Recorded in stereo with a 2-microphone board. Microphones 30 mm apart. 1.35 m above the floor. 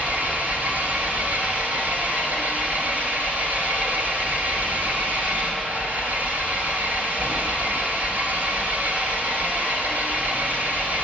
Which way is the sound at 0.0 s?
60° right (ahead or behind).